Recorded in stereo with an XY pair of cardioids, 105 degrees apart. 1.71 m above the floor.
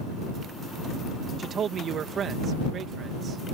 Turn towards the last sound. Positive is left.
turn(degrees=-55)